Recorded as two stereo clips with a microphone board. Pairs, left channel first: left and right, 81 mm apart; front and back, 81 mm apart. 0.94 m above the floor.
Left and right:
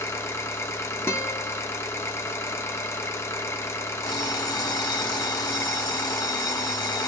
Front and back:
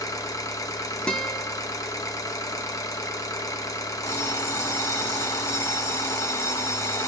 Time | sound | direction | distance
0.0 | an engine running | 40° left | 0.7 m
1.1 | a guitar | 70° left | 1.0 m
4.0 | an alarm clock | 50° left | 1.1 m